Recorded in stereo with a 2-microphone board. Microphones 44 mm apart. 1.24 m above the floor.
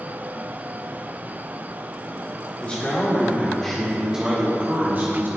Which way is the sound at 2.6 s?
40° left (ahead or behind).